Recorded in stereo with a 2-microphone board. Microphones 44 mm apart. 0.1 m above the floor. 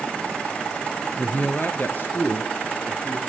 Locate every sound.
1.2 s a man speaking: 30° left (ahead or behind), 1.5 m; by 3.2 s 50° left (ahead or behind), 3.5 m